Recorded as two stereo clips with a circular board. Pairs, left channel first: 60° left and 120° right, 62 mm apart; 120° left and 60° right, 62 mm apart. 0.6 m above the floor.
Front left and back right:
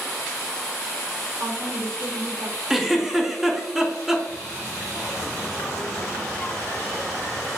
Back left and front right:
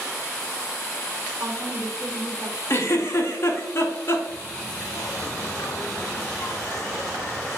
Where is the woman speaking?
95° right, 2 m.